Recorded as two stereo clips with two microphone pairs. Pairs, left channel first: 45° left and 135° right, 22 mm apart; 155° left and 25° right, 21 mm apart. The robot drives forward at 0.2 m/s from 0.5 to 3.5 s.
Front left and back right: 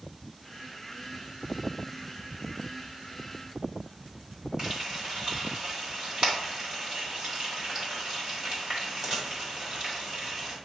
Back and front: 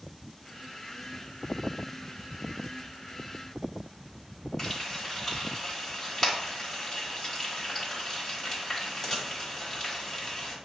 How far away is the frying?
About 1.8 m.